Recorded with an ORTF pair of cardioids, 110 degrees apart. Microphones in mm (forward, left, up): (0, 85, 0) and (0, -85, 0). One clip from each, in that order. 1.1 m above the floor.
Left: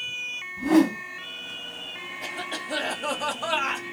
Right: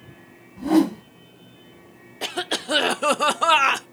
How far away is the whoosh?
About 1.0 m.